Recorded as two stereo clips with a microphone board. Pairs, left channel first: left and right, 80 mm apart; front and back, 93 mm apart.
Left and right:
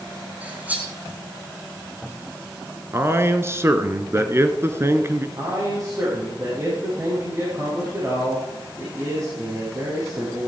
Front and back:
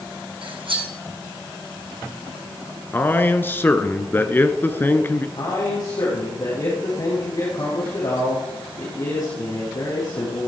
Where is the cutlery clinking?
160° right, 3 m.